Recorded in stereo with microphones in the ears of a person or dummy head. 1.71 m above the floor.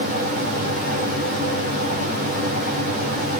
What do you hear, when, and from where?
Only background noise.